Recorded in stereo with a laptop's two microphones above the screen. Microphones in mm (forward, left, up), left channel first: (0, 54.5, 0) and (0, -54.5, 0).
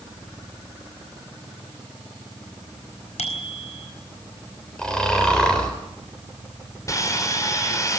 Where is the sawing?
30° left (ahead or behind), 4 m.